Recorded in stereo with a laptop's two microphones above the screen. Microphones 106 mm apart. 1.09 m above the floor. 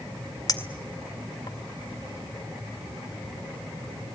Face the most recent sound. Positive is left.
turn(degrees=40)  # may be behind; listen again after turning